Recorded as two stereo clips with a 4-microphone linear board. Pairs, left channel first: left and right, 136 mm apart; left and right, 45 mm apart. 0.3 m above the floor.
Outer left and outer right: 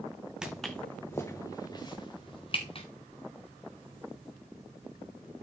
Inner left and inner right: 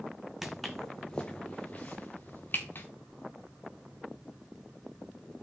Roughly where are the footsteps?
Centre.